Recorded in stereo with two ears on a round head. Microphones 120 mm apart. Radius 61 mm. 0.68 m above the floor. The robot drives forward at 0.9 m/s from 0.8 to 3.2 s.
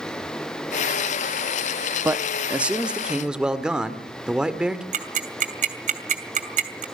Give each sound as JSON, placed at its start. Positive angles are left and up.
{"t": 2.0, "sound": "a man speaking", "side_deg": -15, "distance_m": 0.6}
{"t": 4.9, "sound": "ticking", "side_deg": -55, "distance_m": 2.5}